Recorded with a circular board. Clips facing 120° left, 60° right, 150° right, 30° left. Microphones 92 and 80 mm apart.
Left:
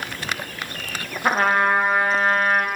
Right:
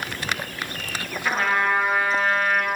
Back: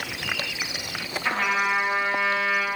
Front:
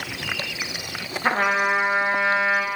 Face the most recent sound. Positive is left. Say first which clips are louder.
# left 4 dB, front 4 dB
turn(degrees=80)